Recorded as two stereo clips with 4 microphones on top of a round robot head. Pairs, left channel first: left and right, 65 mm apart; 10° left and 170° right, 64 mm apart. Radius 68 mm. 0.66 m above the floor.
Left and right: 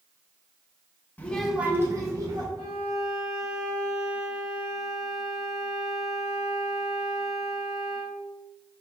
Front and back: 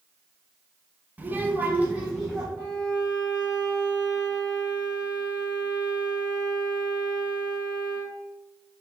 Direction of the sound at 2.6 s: 115° right.